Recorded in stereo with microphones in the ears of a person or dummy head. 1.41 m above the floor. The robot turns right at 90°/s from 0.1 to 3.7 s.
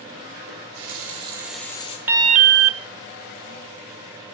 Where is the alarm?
170° right, 0.8 m; by 2.8 s 105° right, 0.8 m.